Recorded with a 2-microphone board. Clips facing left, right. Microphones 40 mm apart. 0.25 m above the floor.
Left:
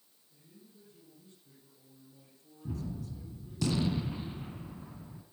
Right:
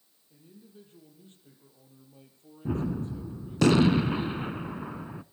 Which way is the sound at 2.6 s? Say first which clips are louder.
Right 10 dB; 70° right (ahead or behind).